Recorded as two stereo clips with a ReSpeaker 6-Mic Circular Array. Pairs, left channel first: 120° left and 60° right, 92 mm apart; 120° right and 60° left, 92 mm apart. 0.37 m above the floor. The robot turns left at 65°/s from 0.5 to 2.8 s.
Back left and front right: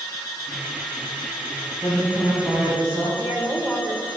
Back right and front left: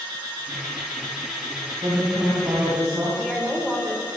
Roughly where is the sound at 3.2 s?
Ahead right.